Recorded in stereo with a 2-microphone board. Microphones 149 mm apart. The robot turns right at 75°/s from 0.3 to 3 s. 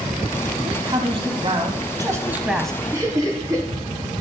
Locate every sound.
0.6 s a man speaking: 150° right, 1.2 m; by 2.8 s 15° left, 1.2 m
2.9 s laughter: 15° right (ahead or behind), 4.5 m; by 3.7 s 25° right (ahead or behind), 4.5 m